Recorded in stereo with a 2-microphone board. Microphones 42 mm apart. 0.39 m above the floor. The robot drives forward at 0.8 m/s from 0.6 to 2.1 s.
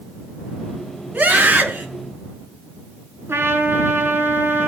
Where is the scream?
40° right (ahead or behind), 4.5 m.